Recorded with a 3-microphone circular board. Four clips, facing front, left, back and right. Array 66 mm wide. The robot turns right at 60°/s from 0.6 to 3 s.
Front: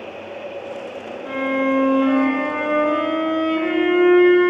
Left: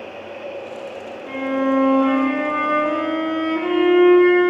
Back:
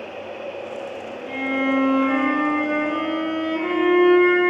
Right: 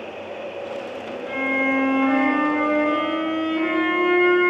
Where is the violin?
5° left, 3 m; by 4.5 s 110° left, 3 m.